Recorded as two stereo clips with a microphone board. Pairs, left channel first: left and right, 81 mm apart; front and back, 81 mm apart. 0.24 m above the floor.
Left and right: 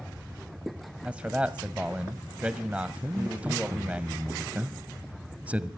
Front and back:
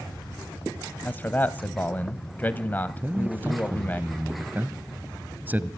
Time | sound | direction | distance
1.1 | a man speaking | 35° right | 1.0 m
3.0 | a man speaking | 145° right | 1.2 m